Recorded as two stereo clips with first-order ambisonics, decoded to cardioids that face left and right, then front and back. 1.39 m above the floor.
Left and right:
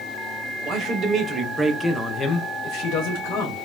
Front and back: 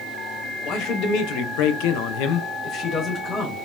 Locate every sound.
0.6 s a man speaking: 40° right, 0.9 m; by 3.5 s 75° left, 0.8 m